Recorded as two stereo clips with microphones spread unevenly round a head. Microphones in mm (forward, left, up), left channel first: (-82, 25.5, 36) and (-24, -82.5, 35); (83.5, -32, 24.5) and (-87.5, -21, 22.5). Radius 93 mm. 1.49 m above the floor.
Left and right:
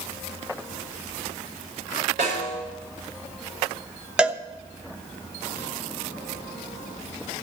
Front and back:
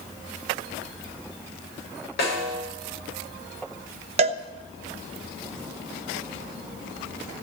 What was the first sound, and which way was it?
A snare drum, 25° right.